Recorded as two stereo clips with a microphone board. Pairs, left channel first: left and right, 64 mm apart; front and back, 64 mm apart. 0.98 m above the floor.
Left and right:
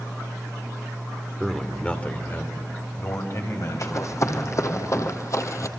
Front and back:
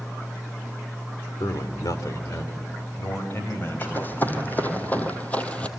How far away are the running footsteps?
About 2.5 m.